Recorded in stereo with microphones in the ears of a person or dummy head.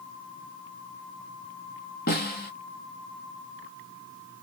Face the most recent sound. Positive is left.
turn(degrees=50)  # may be behind; listen again after turning